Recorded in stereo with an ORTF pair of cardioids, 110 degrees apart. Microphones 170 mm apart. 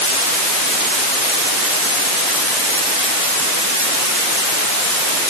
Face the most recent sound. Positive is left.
No sound to turn to.